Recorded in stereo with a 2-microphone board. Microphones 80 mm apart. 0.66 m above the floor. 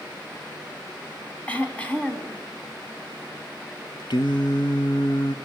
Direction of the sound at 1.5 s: 15° left (ahead or behind).